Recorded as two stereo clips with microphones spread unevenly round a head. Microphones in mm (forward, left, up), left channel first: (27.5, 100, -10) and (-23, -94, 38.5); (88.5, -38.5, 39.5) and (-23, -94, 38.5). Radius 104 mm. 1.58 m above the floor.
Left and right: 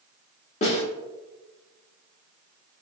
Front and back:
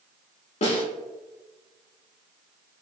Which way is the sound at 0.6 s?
10° left.